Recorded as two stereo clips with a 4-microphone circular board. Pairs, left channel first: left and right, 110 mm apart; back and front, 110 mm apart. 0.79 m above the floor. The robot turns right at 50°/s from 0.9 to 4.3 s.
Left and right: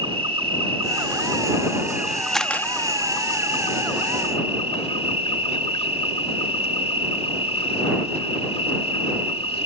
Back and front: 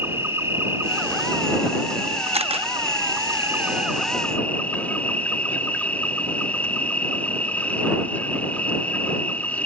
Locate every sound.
0.0 s an insect: 65° right; by 9.7 s 105° left
2.3 s a camera shutter: 5° left; by 2.7 s 20° left